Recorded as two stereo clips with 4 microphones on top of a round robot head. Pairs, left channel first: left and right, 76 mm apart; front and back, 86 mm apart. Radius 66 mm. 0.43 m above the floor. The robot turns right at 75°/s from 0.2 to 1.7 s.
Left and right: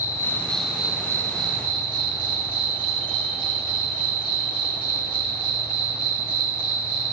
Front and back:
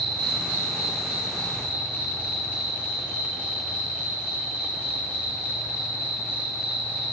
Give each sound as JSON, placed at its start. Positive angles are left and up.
{"t": 0.0, "sound": "an insect", "azimuth_deg": 145, "distance_m": 0.7}